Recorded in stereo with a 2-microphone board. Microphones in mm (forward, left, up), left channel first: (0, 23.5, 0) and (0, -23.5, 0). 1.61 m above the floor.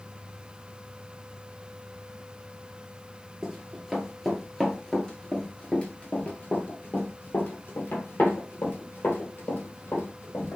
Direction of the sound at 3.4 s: 10° right (ahead or behind).